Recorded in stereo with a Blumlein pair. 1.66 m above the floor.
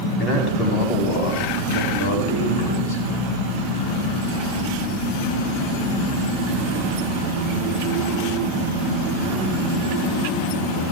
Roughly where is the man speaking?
Ahead left.